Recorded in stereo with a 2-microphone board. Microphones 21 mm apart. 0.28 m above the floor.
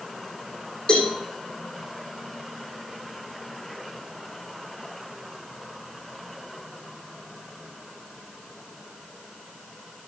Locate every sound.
0.9 s a cowbell: 45° left (ahead or behind), 8.5 m